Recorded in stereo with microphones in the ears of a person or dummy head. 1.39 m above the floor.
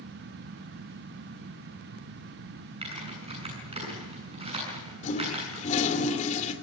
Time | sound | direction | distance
2.8 | typing on a keyboard | 25° right (ahead or behind) | 8 m
5.0 | a toilet flushing | 40° left (ahead or behind) | 3 m